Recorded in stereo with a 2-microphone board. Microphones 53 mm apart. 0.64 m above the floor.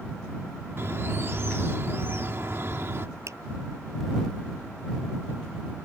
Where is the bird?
50° right (ahead or behind).